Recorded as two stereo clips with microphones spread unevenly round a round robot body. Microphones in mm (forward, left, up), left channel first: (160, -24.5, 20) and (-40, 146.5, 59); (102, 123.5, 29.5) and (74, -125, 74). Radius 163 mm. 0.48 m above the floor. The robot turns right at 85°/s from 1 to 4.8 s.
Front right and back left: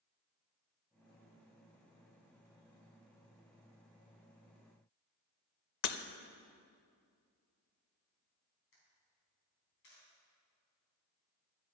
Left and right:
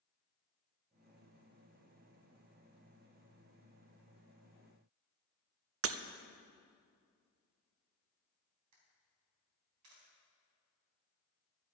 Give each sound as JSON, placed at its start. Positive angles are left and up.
{"t": 5.8, "sound": "breaking glass", "azimuth_deg": -60, "distance_m": 0.6}
{"t": 8.7, "sound": "a camera shutter", "azimuth_deg": -95, "distance_m": 3.5}